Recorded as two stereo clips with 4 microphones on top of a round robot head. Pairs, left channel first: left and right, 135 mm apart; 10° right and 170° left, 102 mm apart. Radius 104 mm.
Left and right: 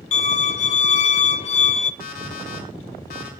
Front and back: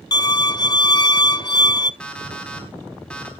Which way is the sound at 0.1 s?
40° left.